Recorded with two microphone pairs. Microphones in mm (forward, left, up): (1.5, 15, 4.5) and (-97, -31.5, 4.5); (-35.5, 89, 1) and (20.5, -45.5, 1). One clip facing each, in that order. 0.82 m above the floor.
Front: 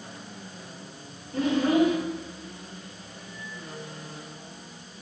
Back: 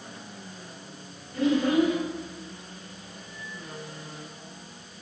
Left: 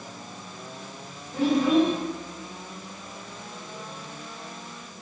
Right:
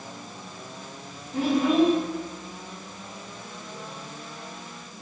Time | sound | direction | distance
1.3 | a child speaking | 30° left | 2 m